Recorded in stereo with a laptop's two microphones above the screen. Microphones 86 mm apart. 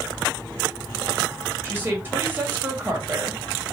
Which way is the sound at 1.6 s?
20° right (ahead or behind).